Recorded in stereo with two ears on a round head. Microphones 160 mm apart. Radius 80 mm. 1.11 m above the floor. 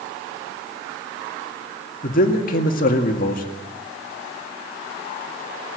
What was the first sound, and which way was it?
A man speaking, 50° left (ahead or behind).